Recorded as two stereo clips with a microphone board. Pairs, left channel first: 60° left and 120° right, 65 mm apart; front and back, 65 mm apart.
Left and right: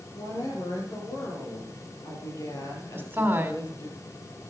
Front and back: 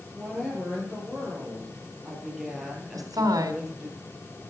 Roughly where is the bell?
No bell in this recording.